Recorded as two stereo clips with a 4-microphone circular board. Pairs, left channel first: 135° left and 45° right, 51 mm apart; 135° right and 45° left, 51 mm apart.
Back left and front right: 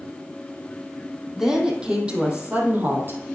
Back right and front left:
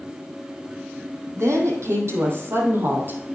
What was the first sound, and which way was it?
A woman speaking, 35° left.